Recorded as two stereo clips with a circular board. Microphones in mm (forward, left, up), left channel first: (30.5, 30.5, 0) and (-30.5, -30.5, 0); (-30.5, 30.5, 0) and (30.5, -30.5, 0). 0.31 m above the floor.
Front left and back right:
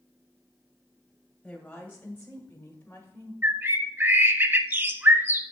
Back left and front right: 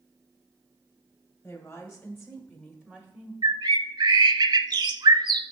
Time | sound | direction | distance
1.4 | a woman speaking | 120° left | 1.5 m
3.4 | a bird | 70° right | 0.6 m